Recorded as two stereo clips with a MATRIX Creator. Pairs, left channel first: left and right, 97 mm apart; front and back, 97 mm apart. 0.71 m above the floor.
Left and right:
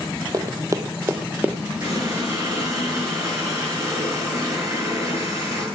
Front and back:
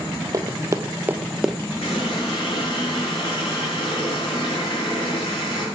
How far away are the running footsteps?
About 1.1 m.